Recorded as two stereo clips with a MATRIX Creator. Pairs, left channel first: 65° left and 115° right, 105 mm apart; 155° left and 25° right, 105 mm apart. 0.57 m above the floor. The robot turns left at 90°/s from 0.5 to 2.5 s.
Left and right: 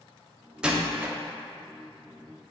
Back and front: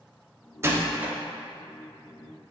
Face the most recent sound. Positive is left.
turn(degrees=150)